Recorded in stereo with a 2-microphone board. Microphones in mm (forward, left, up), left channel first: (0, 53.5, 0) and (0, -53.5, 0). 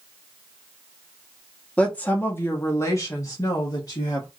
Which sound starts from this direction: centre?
A woman speaking, at 1.8 s.